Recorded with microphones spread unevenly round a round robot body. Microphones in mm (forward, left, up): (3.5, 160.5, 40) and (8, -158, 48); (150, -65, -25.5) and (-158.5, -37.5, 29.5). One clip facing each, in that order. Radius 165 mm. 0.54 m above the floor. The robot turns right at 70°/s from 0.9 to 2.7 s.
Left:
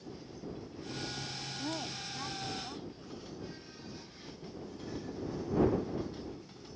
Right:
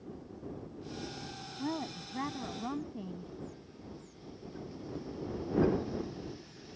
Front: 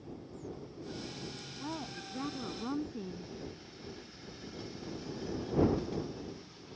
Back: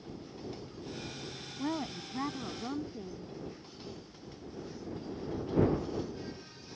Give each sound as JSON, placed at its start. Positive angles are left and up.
{"t": 1.6, "sound": "a woman speaking", "azimuth_deg": -155}